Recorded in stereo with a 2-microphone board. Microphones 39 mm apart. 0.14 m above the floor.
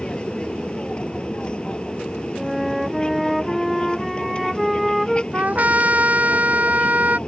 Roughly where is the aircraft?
Left.